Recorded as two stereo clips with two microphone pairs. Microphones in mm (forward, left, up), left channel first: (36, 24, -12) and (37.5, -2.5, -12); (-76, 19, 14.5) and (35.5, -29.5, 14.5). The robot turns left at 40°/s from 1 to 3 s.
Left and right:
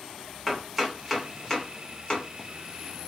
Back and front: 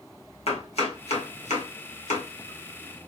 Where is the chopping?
170° right, 1.1 m; by 2.3 s 140° left, 1.1 m.